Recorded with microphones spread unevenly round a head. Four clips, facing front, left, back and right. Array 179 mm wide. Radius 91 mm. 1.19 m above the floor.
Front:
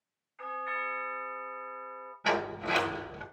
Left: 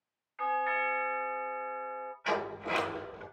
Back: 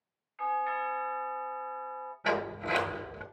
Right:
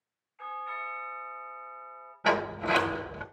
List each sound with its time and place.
0.4 s a doorbell: 85° left, 3 m
2.2 s a sliding door: 95° right, 2 m